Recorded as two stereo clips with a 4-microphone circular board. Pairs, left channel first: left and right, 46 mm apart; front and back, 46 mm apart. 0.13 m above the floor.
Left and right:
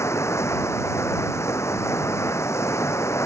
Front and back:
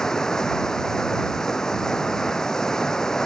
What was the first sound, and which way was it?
Running water, 80° left.